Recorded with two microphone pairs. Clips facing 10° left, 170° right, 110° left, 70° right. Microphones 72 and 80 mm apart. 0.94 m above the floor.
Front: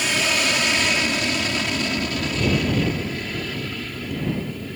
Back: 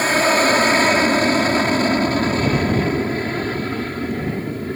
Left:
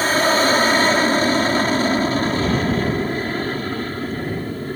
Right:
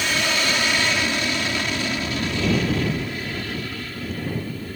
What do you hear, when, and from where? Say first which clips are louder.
0.0 s an aircraft: back 7 dB, left 7 dB; 150° left